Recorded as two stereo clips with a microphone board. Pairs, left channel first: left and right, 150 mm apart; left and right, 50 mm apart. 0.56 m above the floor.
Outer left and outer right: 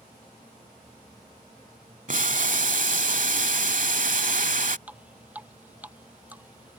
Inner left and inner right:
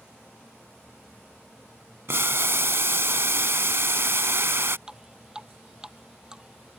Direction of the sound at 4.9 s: 10° right (ahead or behind).